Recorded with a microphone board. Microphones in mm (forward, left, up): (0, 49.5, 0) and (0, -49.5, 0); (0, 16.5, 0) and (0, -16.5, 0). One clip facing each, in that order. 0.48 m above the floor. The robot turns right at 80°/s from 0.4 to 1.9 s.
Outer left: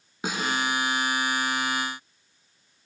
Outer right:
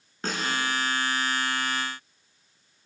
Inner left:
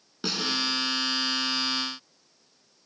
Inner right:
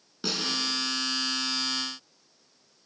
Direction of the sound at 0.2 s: 10° left (ahead or behind).